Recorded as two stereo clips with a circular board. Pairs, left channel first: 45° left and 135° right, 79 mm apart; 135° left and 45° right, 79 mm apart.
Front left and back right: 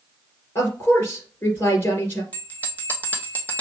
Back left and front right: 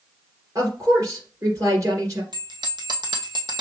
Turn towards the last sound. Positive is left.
turn(degrees=-25)